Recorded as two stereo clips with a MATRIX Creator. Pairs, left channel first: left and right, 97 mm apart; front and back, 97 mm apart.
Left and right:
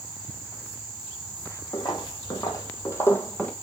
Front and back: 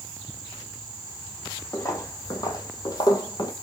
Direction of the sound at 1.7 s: 50° left.